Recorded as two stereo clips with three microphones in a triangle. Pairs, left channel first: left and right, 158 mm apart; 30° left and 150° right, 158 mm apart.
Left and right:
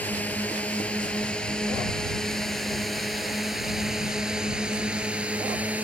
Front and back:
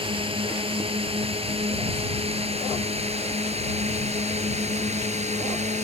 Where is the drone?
165° left; by 5.8 s 170° right.